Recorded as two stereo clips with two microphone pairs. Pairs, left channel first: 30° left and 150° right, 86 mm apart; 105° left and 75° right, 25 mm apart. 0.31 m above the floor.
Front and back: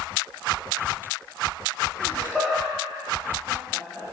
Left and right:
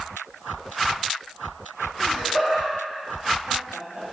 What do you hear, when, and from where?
2.0 s laughter: 105° left, 1.2 m; by 4.0 s 125° right, 1.0 m